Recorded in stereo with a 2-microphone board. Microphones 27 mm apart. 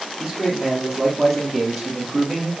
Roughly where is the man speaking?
Centre.